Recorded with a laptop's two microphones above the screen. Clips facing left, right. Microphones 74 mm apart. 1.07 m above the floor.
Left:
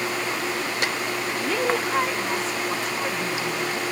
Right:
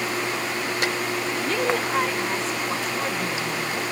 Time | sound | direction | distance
1.3 | a woman speaking | 5° left (ahead or behind) | ?